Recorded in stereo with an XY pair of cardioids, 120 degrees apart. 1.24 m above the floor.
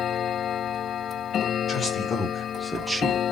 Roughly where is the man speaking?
Ahead left.